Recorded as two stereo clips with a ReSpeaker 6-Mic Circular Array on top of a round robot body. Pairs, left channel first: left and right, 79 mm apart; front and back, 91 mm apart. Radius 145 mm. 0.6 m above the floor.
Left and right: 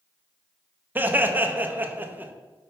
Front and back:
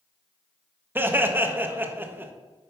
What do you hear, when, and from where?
0.9 s laughter: 130° right, 0.7 m